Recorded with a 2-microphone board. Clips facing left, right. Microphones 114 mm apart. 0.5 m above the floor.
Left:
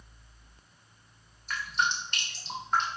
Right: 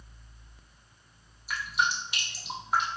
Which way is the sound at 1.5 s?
10° right (ahead or behind).